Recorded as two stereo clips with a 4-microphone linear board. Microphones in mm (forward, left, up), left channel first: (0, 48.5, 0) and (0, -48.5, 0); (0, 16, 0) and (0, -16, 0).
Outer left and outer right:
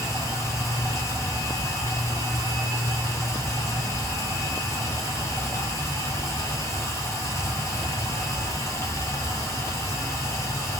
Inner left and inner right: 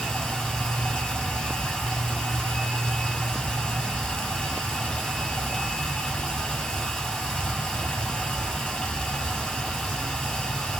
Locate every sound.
0.0 s running water: 30° left (ahead or behind), 1.3 m